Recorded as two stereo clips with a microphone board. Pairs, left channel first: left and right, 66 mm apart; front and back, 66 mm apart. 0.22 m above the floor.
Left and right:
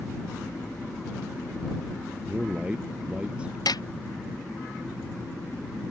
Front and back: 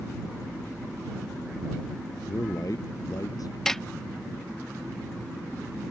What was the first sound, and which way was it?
A man speaking, 20° right.